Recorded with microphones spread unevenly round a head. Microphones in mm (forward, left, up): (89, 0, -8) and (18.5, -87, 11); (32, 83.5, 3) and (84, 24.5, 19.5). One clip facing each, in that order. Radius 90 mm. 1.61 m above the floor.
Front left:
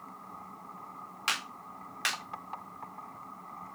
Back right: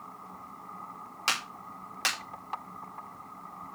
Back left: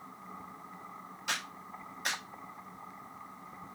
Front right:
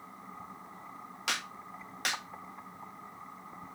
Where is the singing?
I don't hear singing.